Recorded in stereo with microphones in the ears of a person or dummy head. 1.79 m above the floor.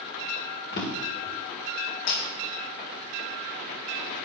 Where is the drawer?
40° left (ahead or behind), 2.0 m.